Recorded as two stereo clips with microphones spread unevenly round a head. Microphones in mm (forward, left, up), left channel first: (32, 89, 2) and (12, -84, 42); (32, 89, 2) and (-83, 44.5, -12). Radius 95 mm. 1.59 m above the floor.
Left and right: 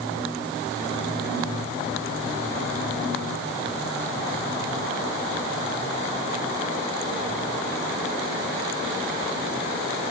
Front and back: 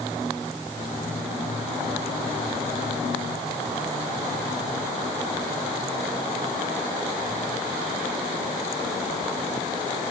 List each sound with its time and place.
Only background noise.